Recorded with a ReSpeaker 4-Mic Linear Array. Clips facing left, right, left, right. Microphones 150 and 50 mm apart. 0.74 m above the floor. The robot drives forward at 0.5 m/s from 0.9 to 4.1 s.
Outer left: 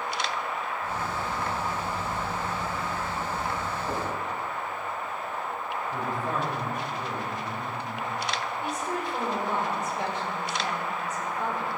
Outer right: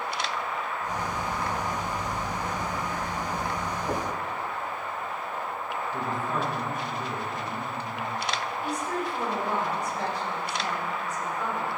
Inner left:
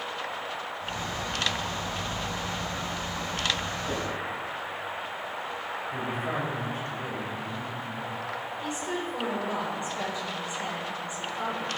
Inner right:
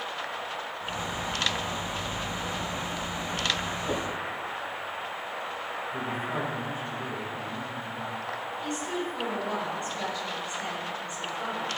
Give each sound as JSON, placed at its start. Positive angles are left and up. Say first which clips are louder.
{"t": 3.9, "sound": "knocking", "louder": "outer right 2 dB, inner right 2 dB", "side_deg": -15, "distance_m": 3.5}
{"t": 5.9, "sound": "a man speaking", "louder": "even, inner left 1 dB", "side_deg": 65, "distance_m": 3.5}
{"t": 8.6, "sound": "a woman speaking", "louder": "outer right 2 dB, even", "side_deg": 25, "distance_m": 3.0}